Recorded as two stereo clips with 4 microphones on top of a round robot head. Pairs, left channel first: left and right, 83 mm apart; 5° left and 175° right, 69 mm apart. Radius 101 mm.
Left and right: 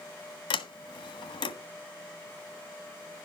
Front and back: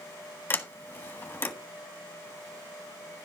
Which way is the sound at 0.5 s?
65° left.